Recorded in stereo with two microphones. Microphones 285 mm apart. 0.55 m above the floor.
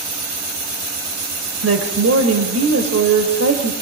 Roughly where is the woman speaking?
Right.